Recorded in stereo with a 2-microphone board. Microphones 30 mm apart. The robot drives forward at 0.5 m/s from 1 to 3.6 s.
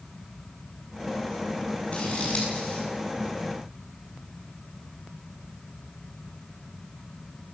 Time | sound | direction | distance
1.9 | scissors | 45° left (ahead or behind) | 9.5 m